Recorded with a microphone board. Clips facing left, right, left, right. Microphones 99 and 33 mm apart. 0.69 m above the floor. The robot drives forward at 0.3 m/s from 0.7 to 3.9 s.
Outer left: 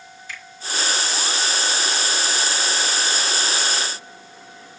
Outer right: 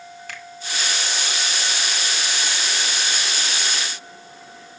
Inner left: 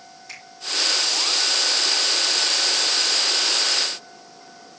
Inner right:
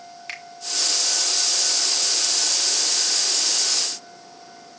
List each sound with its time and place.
0.3 s a finger snap: 60° right (ahead or behind), 2 m